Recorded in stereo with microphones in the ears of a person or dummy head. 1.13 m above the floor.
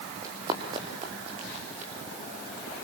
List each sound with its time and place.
0.2 s running footsteps: 20° right (ahead or behind), 3.5 m; by 1.9 s 40° right (ahead or behind), 3.5 m